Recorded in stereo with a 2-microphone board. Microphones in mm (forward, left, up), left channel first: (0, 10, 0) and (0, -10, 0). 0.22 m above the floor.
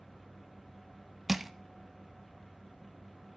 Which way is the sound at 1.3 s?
5° right (ahead or behind).